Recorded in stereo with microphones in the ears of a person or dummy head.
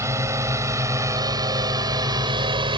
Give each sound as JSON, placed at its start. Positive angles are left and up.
{"t": 0.0, "sound": "a drone", "side_deg": -15}